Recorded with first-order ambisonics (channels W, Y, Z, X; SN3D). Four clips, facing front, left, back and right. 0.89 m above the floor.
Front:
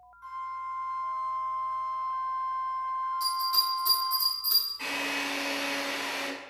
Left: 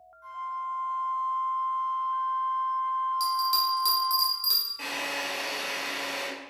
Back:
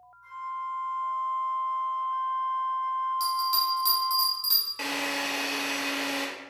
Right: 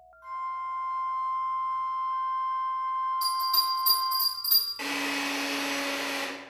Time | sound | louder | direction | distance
0.2 | a flute | right 1 dB, back 1 dB | 15° right | 0.7 m
3.2 | a bell | left 1 dB, even | 120° left | 1.4 m
4.8 | a drill | right 2 dB, back 1 dB | 160° right | 0.9 m